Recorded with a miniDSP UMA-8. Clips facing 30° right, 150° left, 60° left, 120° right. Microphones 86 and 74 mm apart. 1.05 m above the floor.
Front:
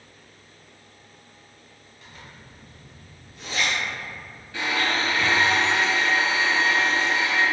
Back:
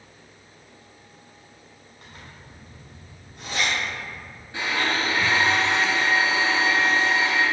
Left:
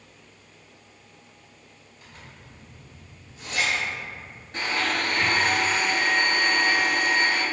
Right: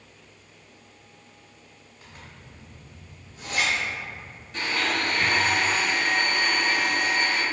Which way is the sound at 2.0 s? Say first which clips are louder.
Even, right 1 dB; 170° right.